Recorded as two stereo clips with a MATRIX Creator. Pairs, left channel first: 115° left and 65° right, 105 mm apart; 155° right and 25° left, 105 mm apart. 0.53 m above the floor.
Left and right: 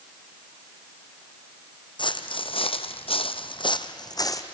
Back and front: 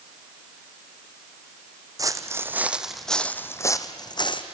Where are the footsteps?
75° left, 1.3 m; by 4.4 s 165° left, 1.4 m.